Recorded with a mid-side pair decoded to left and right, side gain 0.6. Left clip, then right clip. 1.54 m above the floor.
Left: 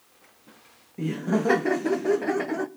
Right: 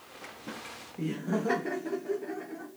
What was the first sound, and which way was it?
Laughter, 20° left.